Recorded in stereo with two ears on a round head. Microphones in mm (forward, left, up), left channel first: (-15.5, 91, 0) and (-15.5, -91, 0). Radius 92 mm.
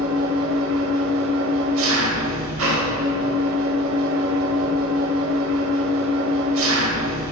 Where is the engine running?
70° right (ahead or behind), 0.8 m.